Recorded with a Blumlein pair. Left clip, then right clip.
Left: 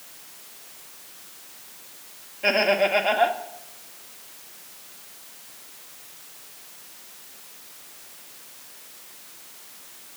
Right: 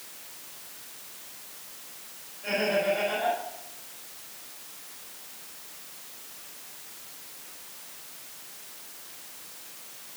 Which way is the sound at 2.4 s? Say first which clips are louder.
Left 6 dB; 40° left.